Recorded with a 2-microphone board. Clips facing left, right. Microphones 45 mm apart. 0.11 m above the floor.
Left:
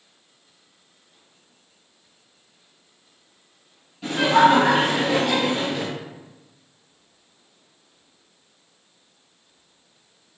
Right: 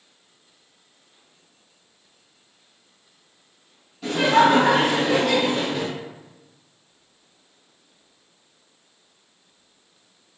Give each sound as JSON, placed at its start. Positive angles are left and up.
{"t": 4.0, "sound": "laughter", "side_deg": 5, "distance_m": 1.9}